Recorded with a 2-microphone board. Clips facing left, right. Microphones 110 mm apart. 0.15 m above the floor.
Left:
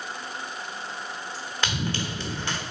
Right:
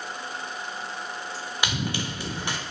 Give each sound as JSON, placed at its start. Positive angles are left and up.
{"t": 1.6, "sound": "running footsteps", "side_deg": -15, "distance_m": 1.4}